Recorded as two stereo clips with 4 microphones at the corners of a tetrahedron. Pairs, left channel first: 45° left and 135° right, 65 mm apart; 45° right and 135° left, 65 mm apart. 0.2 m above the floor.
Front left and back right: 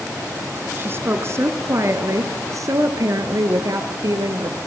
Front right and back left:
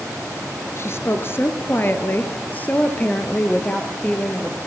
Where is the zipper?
I don't hear a zipper.